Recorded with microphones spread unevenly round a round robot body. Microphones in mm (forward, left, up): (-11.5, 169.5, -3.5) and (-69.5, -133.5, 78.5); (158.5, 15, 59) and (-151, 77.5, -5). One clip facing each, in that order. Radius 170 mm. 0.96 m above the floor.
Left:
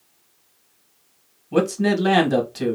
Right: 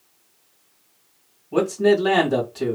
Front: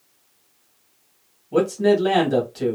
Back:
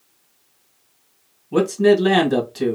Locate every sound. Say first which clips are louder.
1.5 s a man speaking: right 2 dB, back 3 dB; 110° left, 1.7 m